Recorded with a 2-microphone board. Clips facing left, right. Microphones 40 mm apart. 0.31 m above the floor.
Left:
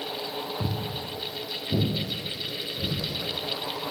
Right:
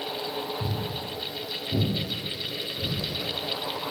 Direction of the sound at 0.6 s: 65° left (ahead or behind).